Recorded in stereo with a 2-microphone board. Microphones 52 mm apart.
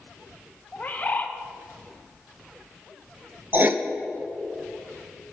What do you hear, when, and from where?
0.7 s a bird: 30° left (ahead or behind), 0.7 m
3.5 s writing: 40° right (ahead or behind), 0.5 m